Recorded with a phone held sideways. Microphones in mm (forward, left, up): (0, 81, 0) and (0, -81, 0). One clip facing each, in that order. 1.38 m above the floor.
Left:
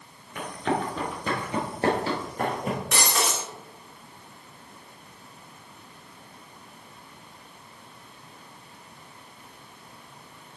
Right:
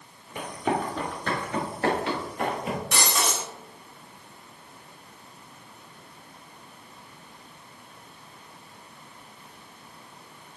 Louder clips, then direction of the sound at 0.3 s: Even; 20° right (ahead or behind).